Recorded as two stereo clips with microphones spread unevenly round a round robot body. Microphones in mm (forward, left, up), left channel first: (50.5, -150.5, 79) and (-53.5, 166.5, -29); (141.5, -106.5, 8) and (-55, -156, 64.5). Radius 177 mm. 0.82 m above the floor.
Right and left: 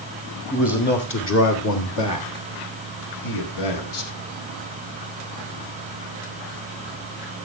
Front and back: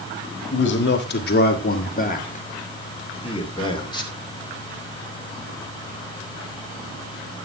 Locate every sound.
0.5 s a man speaking: 5° left, 1.6 m; by 4.1 s 55° right, 2.5 m